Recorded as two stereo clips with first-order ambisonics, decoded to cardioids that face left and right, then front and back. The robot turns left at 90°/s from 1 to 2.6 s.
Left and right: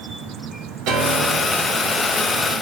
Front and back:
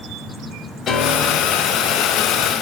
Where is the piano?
65° right, 2.5 m; by 1.7 s 130° right, 2.5 m.